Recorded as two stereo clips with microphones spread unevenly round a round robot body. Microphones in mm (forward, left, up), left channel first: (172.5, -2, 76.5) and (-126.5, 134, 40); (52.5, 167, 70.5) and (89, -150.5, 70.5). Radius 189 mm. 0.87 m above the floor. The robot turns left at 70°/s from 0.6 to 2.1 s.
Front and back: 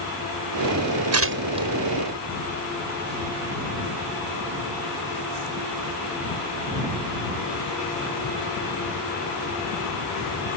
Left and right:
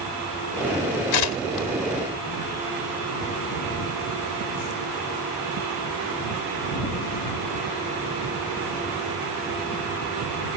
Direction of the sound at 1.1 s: 115° left.